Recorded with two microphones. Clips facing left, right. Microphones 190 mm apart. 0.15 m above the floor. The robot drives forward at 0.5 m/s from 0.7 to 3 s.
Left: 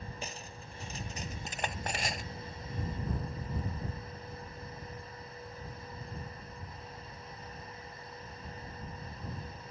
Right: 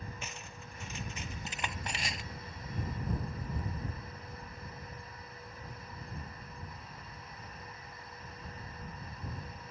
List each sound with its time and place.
0.2 s cutlery clinking: 35° left (ahead or behind); by 2.2 s 50° left (ahead or behind)